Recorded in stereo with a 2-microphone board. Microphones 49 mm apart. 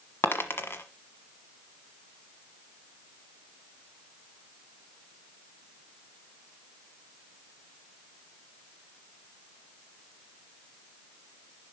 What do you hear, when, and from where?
0.2 s a dropped coin: 50° left (ahead or behind), 1.2 m